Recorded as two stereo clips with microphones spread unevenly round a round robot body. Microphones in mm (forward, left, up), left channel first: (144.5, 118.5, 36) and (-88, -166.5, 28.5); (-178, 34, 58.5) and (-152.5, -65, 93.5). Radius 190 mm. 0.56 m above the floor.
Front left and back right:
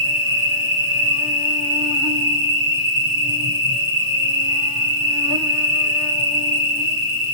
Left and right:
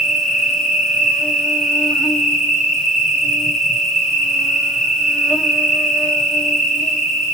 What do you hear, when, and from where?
0.0 s an insect: 170° left, 2.5 m